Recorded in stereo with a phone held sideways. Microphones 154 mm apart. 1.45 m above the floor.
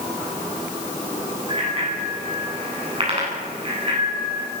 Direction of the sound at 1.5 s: 40° right (ahead or behind).